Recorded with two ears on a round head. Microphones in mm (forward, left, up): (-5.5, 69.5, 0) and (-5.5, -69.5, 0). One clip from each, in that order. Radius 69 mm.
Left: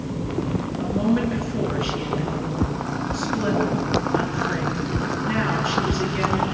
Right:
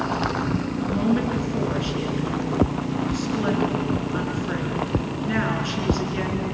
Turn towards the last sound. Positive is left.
turn(degrees=-5)  # may be behind; listen again after turning